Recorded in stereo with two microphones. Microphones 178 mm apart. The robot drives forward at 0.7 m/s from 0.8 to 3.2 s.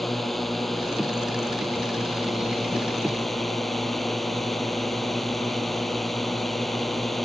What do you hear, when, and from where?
0.0 s a drone: centre (ahead or behind)